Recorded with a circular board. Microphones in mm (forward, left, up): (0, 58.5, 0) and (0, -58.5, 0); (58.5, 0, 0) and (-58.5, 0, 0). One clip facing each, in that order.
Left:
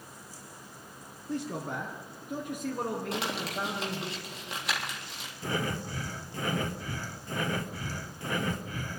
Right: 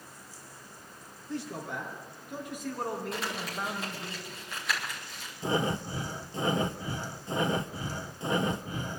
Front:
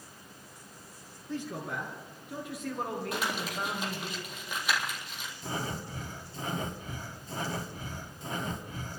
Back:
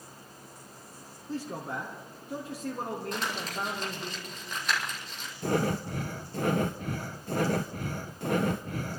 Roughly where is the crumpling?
Left.